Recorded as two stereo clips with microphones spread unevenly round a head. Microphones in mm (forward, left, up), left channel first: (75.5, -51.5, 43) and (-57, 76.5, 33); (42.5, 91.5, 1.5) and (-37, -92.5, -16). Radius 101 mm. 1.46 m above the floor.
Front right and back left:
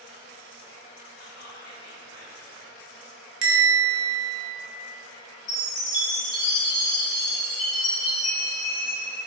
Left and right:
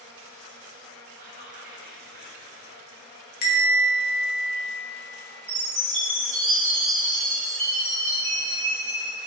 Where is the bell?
115° left, 0.5 m.